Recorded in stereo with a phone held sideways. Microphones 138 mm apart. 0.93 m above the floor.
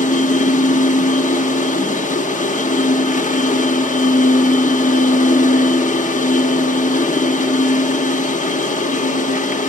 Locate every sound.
0.0 s a machine running: 65° left (ahead or behind), 1.1 m